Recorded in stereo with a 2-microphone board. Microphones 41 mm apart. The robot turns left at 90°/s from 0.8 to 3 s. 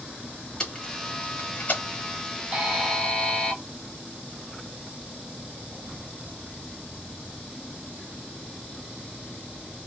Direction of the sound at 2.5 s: 150° right.